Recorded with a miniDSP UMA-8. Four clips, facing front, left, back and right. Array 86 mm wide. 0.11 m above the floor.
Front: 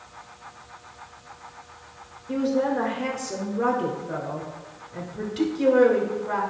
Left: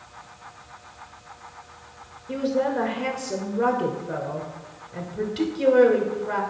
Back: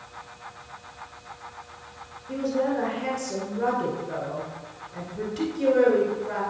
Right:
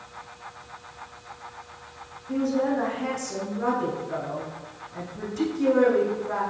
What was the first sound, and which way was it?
A woman speaking, 70° left.